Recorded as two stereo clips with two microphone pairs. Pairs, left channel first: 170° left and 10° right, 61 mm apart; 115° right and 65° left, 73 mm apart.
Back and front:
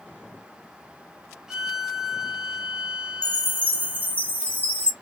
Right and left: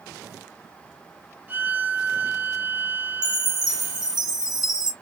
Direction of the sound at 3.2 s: 50° left.